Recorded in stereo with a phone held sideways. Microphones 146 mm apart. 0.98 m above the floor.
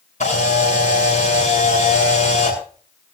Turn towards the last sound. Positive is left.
turn(degrees=55)  # may be behind; listen again after turning